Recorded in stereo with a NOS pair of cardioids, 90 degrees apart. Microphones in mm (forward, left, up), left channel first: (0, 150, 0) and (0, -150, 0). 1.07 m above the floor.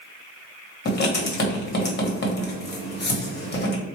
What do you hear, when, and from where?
0.8 s writing: 35° left, 1.3 m